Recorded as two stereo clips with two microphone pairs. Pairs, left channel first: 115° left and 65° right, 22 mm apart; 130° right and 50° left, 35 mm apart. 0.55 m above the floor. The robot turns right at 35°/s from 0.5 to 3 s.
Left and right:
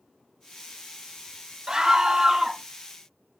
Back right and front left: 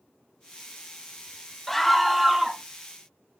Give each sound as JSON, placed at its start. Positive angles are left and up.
{"t": 1.7, "sound": "a scream", "azimuth_deg": -55, "distance_m": 0.7}